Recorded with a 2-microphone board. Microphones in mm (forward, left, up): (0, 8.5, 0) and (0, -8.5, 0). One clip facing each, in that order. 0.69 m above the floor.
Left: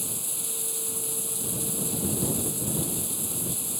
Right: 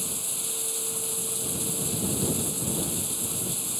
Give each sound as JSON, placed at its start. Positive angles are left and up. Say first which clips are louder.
{"t": 0.0, "sound": "running water", "louder": "right 1 dB", "side_deg": -5}